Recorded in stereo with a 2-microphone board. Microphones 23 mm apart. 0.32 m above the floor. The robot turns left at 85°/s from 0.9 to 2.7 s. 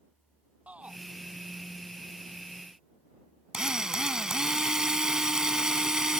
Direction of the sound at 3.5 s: 30° right (ahead or behind).